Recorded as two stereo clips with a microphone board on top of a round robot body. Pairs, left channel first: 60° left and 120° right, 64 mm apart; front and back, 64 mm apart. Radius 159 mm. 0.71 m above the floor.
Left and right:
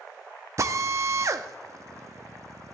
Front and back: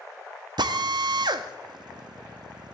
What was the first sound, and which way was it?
A drill, 165° right.